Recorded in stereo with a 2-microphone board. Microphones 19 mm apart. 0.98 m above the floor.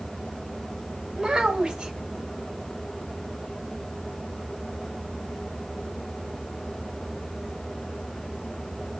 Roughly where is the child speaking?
Right.